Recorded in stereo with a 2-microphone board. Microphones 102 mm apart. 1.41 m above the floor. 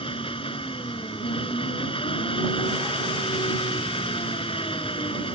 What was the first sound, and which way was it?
An engine running, 60° left (ahead or behind).